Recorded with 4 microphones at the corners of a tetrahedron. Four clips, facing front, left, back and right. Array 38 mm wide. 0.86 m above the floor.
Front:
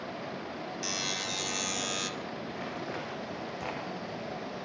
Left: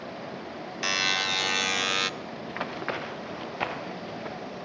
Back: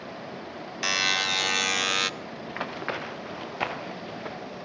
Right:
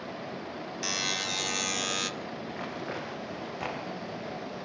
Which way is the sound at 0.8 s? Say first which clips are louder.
Left 6 dB, back 11 dB; 145° left.